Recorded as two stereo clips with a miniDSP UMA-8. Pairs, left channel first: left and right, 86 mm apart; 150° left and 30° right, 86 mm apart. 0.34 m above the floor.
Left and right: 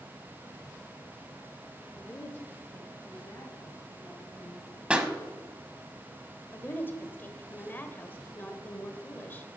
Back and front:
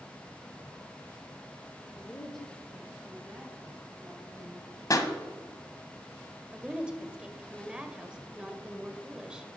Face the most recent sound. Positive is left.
turn(degrees=45)